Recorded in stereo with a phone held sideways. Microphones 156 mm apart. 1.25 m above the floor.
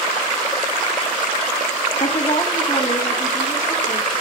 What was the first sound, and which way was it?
A woman speaking, 50° left (ahead or behind).